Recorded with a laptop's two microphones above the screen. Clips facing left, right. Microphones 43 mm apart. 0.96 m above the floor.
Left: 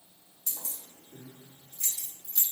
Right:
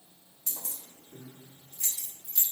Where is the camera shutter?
I don't hear a camera shutter.